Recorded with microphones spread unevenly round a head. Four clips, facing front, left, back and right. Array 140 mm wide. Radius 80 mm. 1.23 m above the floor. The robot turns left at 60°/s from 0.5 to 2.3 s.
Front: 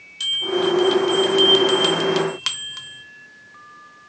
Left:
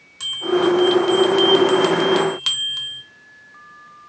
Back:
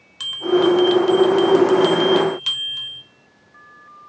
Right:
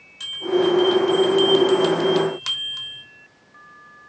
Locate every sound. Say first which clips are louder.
0.2 s a bell: left 1 dB, back 5 dB; 135° left, 0.8 m; by 3.0 s 30° left, 0.8 m